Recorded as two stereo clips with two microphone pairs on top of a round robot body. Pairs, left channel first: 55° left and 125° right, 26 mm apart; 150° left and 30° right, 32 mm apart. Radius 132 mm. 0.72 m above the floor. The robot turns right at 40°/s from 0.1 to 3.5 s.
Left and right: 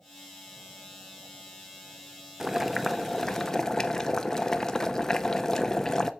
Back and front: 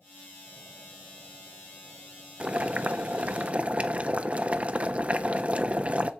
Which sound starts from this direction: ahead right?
Boiling, at 2.4 s.